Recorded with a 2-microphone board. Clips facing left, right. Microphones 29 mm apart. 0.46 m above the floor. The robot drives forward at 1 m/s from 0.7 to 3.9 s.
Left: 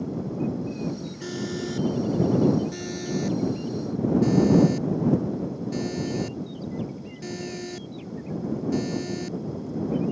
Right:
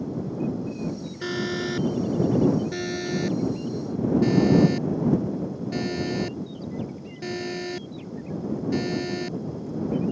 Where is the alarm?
35° right (ahead or behind); by 10.1 s 25° right (ahead or behind).